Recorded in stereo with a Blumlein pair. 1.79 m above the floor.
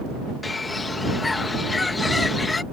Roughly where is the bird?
Ahead.